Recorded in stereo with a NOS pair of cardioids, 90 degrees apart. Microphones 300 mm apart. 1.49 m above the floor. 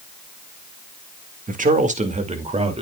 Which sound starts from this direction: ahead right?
A man speaking, at 1.5 s.